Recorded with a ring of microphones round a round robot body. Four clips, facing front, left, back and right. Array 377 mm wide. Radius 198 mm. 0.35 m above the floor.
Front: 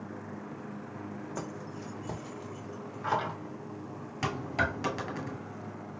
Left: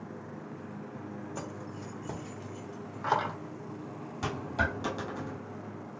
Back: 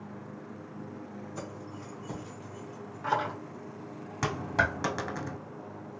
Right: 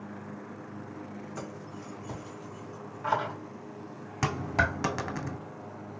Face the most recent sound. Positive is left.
turn(degrees=-105)